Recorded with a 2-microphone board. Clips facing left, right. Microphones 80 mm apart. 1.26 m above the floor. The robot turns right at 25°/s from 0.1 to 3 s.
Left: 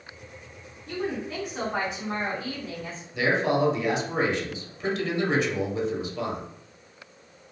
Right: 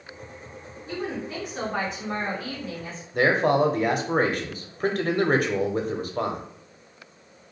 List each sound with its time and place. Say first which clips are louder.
0.9 s a woman speaking: left 1 dB; 10° right, 1.5 m; by 3.0 s 45° left, 1.5 m
3.1 s a man speaking: right 3 dB; 50° right (ahead or behind), 0.5 m